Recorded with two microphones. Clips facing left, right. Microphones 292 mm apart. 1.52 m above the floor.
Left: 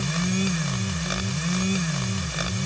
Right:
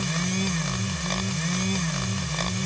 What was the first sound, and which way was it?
Only background noise.